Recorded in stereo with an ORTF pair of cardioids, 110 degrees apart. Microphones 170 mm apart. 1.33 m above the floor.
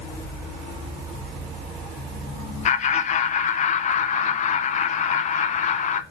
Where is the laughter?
45° left, 1.1 m.